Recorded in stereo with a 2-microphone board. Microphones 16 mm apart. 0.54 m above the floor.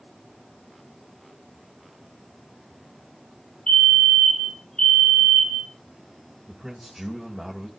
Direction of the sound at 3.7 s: 60° left (ahead or behind).